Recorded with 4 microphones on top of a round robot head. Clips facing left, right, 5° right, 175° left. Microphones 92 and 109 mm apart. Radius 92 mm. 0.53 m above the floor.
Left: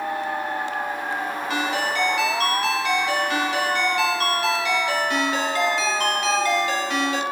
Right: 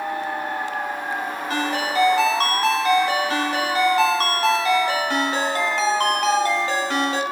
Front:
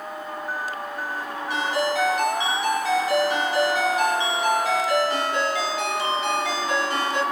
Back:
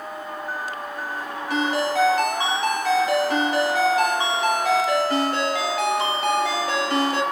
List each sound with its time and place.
1.5 s a ringtone: 140° right, 1.2 m